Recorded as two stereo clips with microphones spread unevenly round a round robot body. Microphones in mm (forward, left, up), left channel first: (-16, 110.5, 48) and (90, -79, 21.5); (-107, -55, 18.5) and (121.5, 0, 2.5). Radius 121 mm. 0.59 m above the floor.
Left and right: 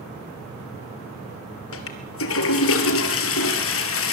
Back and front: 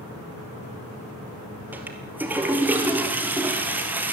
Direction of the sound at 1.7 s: 100° left.